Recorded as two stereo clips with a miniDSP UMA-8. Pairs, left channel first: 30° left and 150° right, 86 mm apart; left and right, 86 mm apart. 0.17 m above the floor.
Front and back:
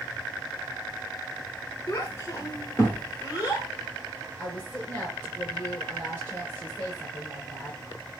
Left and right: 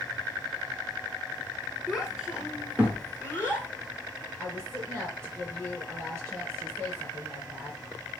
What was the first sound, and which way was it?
A child speaking, 5° right.